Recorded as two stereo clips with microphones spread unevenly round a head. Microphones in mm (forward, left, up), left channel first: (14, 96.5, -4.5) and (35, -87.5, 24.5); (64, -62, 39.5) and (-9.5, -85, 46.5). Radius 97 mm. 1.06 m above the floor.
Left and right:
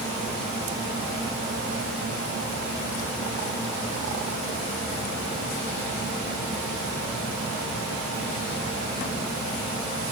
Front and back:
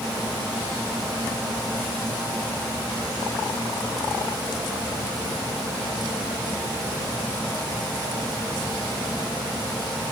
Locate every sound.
Only background noise.